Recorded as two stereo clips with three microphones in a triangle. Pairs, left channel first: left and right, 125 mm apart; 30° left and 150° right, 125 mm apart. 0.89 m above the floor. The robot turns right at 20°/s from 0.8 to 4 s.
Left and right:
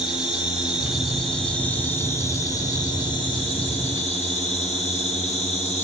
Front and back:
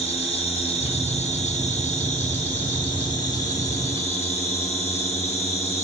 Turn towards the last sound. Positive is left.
turn(degrees=55)